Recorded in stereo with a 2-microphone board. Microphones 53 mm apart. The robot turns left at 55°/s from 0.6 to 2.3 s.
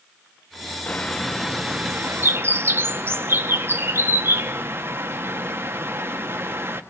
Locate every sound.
0.9 s a bird: 30° left, 1.4 m; by 6.8 s 50° right, 1.4 m